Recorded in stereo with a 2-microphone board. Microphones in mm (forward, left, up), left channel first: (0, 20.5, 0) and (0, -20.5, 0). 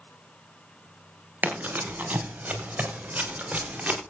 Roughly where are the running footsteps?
Right.